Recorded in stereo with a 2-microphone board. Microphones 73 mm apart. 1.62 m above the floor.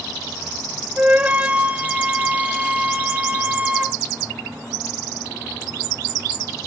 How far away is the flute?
About 0.6 m.